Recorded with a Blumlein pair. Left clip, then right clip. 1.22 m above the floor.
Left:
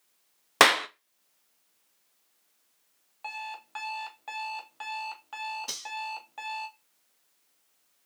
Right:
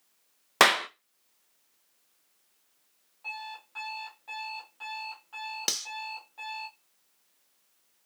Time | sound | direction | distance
0.6 | a clap | 5° left | 0.5 m
3.2 | an alarm clock | 30° left | 0.9 m
5.7 | cutlery clinking | 40° right | 0.9 m